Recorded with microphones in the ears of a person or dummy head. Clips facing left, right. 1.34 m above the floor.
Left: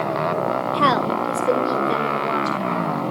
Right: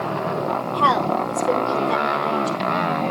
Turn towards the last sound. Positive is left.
turn(degrees=25)  # may be behind; listen again after turning